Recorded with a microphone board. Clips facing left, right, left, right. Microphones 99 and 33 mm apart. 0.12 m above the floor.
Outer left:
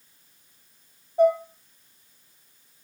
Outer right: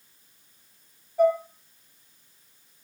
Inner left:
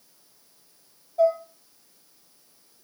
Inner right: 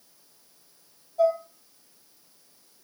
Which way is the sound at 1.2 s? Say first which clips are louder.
Outer left 2 dB, inner left 2 dB; 25° left (ahead or behind).